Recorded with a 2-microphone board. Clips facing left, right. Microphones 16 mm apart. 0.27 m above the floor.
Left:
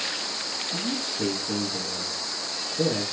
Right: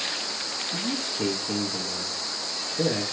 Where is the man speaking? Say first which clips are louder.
Even; 30° right (ahead or behind), 3.5 m.